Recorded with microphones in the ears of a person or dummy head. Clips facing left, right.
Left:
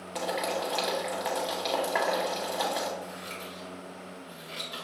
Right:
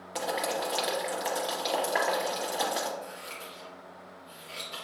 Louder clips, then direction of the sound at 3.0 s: Left 2 dB; 15° left (ahead or behind).